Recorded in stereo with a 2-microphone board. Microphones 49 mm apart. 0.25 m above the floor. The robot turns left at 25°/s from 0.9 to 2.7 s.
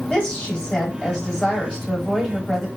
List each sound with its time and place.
0.1 s a woman speaking: 20° left (ahead or behind), 1.5 m; by 2.7 s centre (ahead or behind), 1.5 m